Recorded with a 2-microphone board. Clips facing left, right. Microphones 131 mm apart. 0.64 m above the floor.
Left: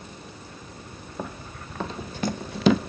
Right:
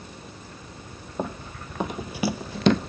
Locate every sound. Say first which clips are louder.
1.2 s running footsteps: right 5 dB; 20° right (ahead or behind), 1.5 m; by 2.8 s 5° left (ahead or behind), 0.7 m